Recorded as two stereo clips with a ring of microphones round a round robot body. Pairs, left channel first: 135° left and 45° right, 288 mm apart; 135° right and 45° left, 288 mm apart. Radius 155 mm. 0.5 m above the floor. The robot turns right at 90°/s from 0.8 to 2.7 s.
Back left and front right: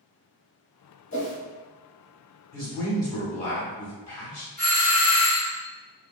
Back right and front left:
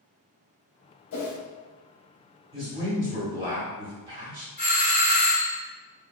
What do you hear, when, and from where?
1.1 s a whoosh: 175° right, 0.7 m; by 1.4 s 150° right, 0.7 m
2.5 s a man speaking: 70° left, 1.4 m; by 4.5 s 85° left, 1.4 m
4.6 s a doorbell: 95° right, 1.8 m